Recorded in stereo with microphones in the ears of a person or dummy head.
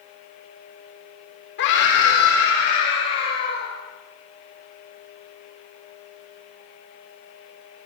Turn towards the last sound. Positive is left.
turn(degrees=65)  # may be behind; listen again after turning